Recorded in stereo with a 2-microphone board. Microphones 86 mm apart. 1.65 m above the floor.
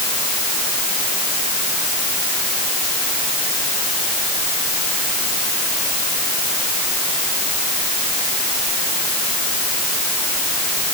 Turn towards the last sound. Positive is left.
No sound to turn to.